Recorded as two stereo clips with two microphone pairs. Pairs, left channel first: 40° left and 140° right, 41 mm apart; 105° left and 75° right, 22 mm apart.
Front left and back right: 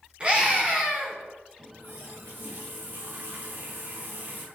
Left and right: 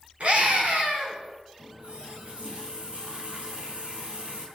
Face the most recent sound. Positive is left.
turn(degrees=-110)